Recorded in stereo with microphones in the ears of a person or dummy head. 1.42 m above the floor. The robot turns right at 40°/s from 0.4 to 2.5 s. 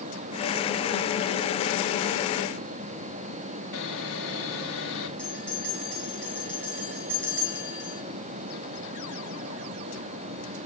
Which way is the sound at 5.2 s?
5° left (ahead or behind).